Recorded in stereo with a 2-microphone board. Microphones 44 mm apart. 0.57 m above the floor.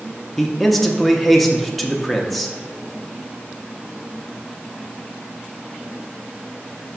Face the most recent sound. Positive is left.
turn(degrees=5)  # may be behind; listen again after turning